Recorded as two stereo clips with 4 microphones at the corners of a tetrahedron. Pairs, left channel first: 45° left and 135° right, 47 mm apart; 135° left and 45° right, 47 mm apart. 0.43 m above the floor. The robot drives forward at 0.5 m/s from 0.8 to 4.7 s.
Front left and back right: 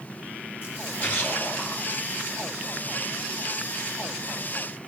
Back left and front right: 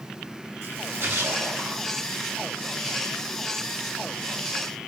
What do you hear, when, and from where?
0.6 s a splash: 15° right, 5 m